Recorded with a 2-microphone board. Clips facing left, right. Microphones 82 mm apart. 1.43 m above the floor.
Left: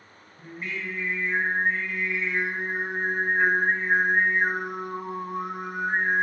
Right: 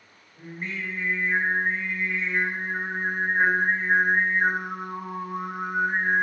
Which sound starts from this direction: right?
Singing, at 0.4 s.